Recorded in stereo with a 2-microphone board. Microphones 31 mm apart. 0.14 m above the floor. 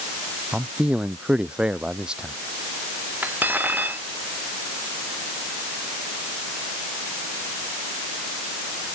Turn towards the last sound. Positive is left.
turn(degrees=-80)